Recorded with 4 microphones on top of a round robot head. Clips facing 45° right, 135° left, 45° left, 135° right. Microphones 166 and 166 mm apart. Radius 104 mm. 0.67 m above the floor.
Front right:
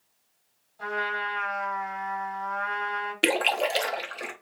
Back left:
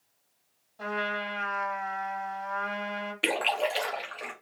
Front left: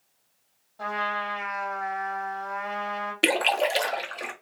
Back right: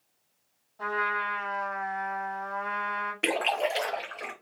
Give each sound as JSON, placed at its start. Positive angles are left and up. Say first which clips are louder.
{"t": 0.8, "sound": "a trumpet", "louder": "even, front left 1 dB", "azimuth_deg": 100, "distance_m": 1.8}
{"t": 3.2, "sound": "a splash", "louder": "front right 3 dB, front left 4 dB", "azimuth_deg": -5, "distance_m": 0.9}